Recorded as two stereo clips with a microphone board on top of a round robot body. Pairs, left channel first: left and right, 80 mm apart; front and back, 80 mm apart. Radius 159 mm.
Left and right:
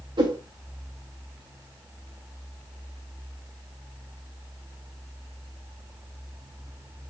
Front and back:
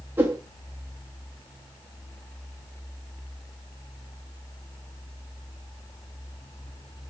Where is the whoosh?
115° right, 0.6 m.